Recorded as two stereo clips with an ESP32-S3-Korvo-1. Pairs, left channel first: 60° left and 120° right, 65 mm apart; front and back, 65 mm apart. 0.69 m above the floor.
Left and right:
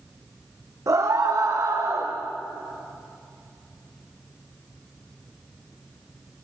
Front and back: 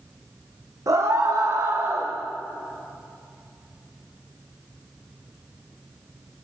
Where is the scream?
150° right, 2.5 m.